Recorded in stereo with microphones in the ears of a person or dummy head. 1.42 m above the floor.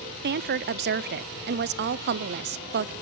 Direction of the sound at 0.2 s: 45° right (ahead or behind).